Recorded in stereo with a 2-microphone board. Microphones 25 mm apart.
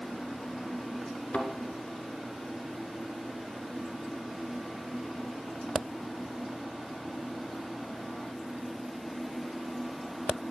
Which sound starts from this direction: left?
A thud, at 1.3 s.